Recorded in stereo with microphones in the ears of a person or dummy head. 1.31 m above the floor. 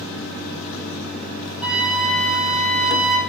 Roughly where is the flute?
Centre.